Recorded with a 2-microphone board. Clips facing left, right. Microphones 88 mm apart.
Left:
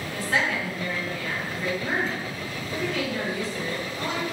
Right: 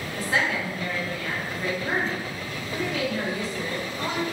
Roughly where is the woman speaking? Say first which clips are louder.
Even; centre.